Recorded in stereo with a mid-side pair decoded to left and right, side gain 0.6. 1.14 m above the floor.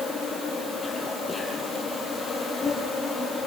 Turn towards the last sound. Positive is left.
turn(degrees=20)